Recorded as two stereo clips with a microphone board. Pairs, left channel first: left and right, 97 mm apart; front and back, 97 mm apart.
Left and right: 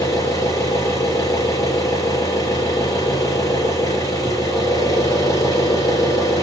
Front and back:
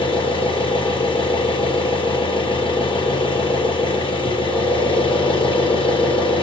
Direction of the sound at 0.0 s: 35° left.